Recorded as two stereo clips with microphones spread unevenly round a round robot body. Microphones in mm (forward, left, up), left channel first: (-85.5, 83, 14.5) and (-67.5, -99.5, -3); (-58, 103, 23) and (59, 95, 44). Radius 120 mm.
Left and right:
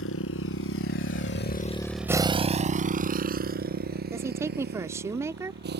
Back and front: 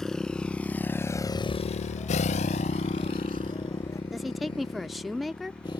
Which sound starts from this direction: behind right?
A woman speaking, at 4.1 s.